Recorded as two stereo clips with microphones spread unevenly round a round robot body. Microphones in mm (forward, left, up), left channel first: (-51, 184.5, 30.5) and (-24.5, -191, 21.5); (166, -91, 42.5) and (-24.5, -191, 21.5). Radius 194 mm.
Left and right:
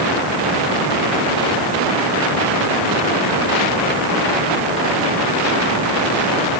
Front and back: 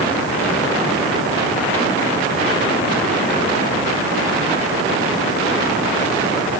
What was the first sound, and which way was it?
Only background noise.